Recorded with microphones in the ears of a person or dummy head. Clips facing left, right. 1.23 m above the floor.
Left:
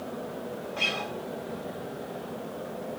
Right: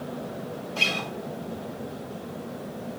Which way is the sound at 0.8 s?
45° right (ahead or behind).